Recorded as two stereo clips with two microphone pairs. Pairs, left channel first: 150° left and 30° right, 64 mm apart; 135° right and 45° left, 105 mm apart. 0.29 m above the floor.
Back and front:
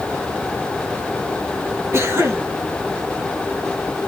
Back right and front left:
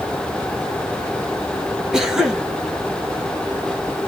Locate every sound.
1.9 s a cough: 40° right, 1.8 m